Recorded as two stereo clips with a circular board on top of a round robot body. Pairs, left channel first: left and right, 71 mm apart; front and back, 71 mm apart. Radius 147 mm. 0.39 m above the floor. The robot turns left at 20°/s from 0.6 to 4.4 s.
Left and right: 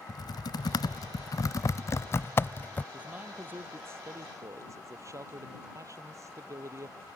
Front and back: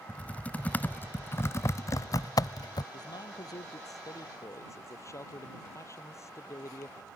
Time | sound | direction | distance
0.1 | typing on a keyboard | 70° left | ?
2.9 | a man speaking | 20° right | ?